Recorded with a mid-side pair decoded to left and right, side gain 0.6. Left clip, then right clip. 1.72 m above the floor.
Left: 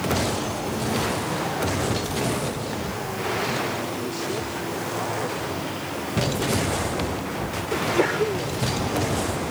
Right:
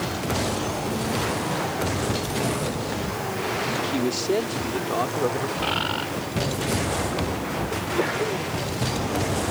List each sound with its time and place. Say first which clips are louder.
3.8 s a man speaking: right 4 dB; 45° right; by 5.5 s 50° right
5.6 s a bird: right 5 dB; 65° right
7.7 s a sneeze: left 5 dB; 20° left